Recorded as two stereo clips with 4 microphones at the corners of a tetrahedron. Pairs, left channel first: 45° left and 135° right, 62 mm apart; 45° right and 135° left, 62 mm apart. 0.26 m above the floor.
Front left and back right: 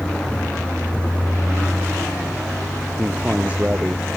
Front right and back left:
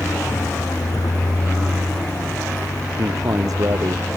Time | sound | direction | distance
0.0 | a vehicle | 25° right | ?
3.0 | a man speaking | 155° left | ?